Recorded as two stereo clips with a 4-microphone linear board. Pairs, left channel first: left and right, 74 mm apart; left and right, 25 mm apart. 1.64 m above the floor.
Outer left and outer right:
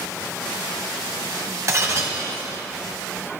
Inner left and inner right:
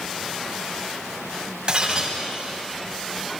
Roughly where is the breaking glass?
Right.